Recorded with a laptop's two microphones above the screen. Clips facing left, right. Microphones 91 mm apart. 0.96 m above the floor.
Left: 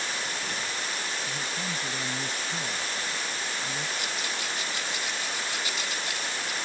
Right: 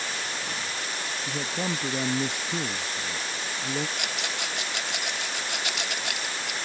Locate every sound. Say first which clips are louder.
1.3 s a man speaking: right 4 dB; 75° right (ahead or behind)
4.0 s a rattle: right 1 dB; 70° right (ahead or behind)